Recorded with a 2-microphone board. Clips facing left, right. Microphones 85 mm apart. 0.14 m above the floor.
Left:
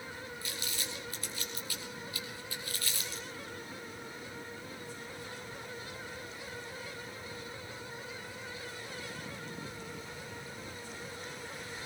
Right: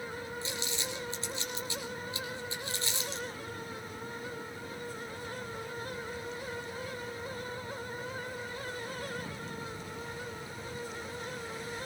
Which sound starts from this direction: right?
Crumpling, at 0.4 s.